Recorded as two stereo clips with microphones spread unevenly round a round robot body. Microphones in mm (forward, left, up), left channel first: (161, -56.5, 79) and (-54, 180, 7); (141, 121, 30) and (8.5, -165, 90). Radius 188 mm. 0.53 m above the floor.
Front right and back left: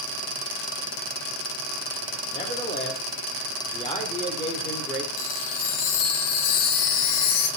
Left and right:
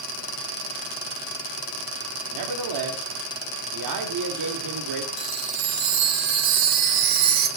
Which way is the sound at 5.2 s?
75° right.